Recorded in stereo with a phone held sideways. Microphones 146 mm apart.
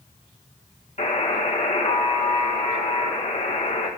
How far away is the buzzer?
About 2 m.